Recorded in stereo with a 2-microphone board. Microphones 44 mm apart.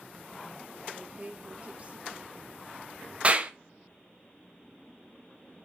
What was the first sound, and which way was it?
A woman speaking, 35° right (ahead or behind).